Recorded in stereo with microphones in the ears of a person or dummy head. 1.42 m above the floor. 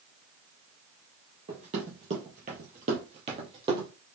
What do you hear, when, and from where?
1.5 s running footsteps: 30° right (ahead or behind), 2 m; by 3.9 s 25° right (ahead or behind), 2 m